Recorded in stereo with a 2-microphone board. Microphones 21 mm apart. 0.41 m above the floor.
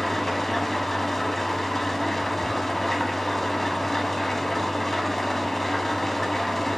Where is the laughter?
No laughter in this recording.